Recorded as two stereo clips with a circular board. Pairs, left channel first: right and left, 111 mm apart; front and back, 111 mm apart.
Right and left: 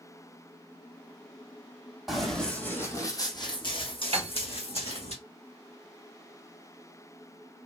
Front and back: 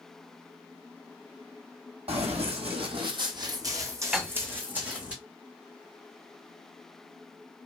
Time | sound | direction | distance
2.1 | running footsteps | straight behind | 1.1 m
4.1 | a piano | 100° left | 0.6 m